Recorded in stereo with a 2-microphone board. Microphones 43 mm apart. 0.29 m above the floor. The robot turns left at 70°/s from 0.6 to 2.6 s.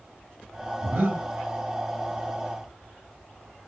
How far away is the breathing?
About 3 m.